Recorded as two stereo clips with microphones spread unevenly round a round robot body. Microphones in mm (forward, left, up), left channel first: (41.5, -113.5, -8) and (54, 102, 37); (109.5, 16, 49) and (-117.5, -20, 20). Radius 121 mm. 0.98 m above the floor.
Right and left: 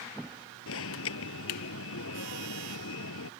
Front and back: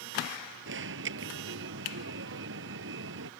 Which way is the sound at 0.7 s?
130° right.